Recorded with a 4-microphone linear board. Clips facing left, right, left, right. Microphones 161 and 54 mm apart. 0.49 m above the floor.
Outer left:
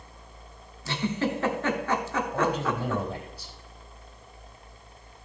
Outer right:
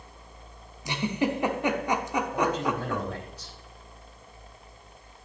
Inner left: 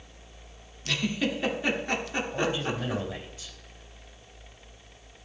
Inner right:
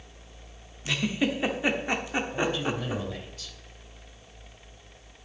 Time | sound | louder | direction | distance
0.8 | a giggle | outer right 1 dB, inner right 1 dB | 15° right (ahead or behind) | 1.1 m
2.3 | a man speaking | outer left 1 dB, inner left 1 dB | 10° left (ahead or behind) | 3.5 m